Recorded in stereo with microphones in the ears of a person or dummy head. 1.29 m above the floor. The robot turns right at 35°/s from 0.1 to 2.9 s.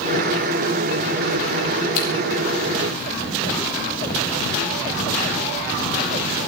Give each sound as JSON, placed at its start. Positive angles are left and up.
{"t": 1.9, "sound": "scissors", "side_deg": 75, "distance_m": 4.0}